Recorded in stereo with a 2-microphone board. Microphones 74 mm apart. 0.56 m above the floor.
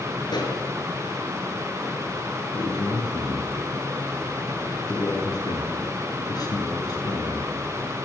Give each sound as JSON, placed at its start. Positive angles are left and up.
{"t": 0.3, "sound": "a pop", "side_deg": 70, "distance_m": 5.0}
{"t": 2.5, "sound": "a man speaking", "side_deg": 60, "distance_m": 7.5}